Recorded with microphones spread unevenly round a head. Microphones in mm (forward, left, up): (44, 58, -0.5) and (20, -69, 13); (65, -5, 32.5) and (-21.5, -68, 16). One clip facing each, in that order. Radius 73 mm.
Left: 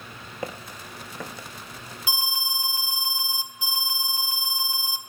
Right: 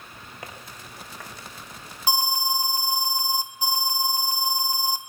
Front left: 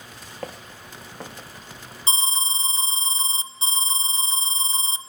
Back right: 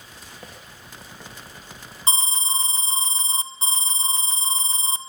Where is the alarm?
155° right, 2.5 m.